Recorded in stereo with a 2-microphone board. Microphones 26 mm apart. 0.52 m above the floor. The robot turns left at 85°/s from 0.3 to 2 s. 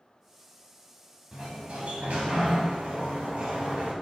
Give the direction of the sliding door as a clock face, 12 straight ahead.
1 o'clock.